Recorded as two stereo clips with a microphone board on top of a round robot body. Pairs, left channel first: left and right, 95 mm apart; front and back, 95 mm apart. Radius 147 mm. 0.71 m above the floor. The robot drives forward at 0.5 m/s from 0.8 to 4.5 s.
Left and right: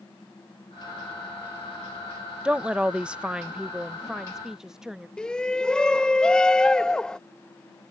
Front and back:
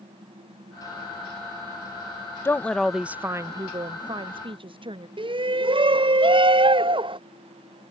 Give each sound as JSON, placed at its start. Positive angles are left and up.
{"t": 2.5, "sound": "a woman speaking", "azimuth_deg": -25}
{"t": 5.2, "sound": "a shout", "azimuth_deg": 170}